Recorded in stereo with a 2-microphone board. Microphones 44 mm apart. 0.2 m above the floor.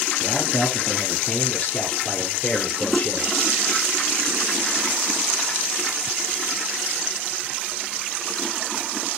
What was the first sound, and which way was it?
A man speaking, 25° left (ahead or behind).